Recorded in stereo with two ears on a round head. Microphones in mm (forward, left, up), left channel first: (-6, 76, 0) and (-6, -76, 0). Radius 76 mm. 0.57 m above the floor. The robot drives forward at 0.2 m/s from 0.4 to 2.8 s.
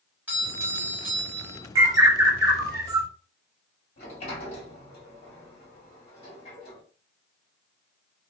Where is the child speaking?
No child speaking in this recording.